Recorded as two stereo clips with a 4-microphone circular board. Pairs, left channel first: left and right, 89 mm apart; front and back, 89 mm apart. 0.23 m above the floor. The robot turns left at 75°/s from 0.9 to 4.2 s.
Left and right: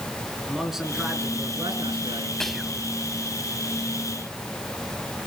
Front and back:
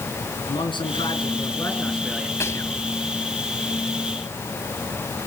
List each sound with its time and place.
0.5 s a man speaking: 5° right, 3.5 m; by 2.3 s 110° right, 3.5 m
2.4 s whispering: 10° left, 1.1 m; by 2.8 s 20° right, 1.1 m